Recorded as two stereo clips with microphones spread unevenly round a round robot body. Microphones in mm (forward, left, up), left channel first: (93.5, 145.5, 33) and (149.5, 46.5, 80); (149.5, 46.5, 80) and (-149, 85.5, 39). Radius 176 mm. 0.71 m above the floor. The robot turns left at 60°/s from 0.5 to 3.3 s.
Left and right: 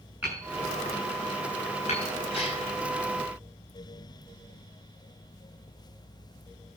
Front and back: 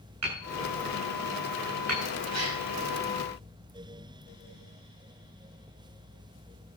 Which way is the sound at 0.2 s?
145° right.